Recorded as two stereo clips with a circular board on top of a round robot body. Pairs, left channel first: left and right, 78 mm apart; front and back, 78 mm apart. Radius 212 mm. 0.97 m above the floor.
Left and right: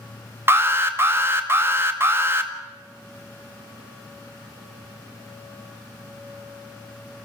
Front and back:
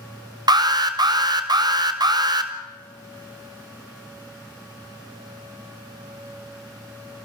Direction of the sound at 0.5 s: 150° right.